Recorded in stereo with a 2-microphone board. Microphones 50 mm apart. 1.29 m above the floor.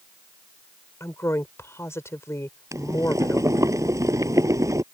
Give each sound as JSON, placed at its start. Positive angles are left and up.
{"t": 1.0, "sound": "a woman speaking", "side_deg": 60}
{"t": 2.7, "sound": "boiling", "side_deg": -85}